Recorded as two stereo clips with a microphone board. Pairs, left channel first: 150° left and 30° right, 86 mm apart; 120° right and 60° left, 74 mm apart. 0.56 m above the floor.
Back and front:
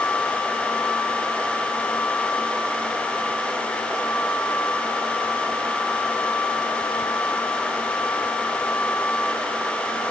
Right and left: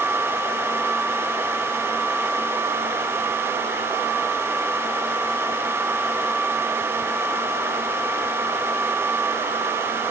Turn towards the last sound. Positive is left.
No sound to turn to.